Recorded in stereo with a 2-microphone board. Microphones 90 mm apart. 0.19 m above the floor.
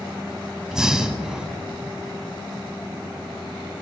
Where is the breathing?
5° right (ahead or behind), 0.8 m.